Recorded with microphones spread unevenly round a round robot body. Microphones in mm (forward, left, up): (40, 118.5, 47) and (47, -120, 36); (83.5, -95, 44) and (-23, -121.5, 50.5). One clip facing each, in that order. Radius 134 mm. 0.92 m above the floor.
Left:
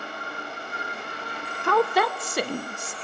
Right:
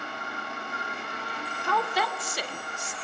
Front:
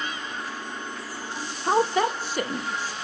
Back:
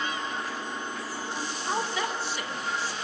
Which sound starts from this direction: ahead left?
A woman speaking, at 1.6 s.